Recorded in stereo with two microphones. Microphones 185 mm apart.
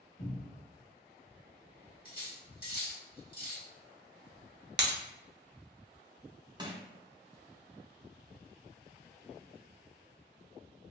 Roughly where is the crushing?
Right.